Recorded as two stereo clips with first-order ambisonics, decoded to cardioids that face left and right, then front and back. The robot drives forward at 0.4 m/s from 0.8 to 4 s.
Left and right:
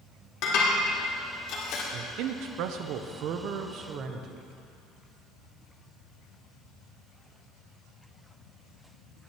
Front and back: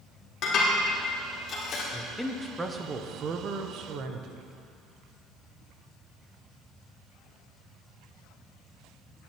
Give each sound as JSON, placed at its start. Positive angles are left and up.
{"t": 0.4, "sound": "dishes clattering", "azimuth_deg": 55, "distance_m": 3.0}
{"t": 1.9, "sound": "a man speaking", "azimuth_deg": -80, "distance_m": 0.7}